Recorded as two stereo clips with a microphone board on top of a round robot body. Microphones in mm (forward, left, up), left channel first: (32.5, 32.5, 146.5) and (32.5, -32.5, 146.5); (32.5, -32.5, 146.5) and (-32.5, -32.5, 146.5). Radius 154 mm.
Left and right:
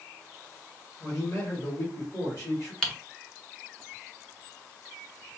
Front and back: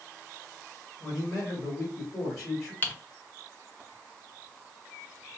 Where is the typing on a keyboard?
20° left, 1.1 m.